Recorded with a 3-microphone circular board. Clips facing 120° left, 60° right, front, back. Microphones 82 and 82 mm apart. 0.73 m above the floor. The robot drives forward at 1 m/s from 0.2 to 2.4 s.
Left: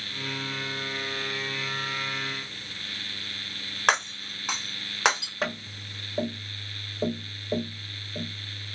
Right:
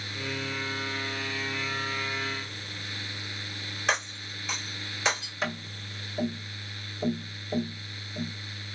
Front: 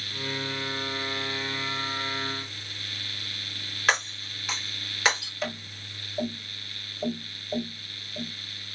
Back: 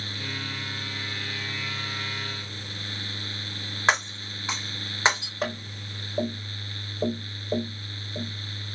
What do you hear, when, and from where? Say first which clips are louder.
3.9 s breaking glass: left 5 dB, back 2 dB; 120° left, 1.7 m
5.4 s tapping: left 2 dB, back 3 dB; 150° left, 4 m